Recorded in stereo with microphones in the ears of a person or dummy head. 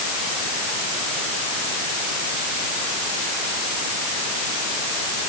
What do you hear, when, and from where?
Only background noise.